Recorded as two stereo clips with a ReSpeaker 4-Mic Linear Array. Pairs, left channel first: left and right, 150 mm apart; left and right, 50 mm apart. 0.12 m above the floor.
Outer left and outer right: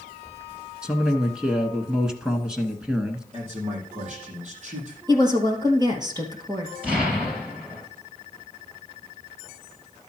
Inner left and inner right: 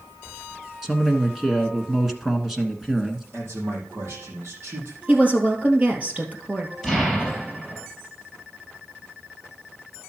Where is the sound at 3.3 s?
50° right (ahead or behind), 4 m.